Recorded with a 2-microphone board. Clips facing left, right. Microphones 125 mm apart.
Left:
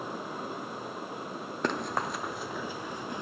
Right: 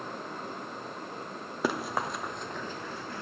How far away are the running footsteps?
About 2 m.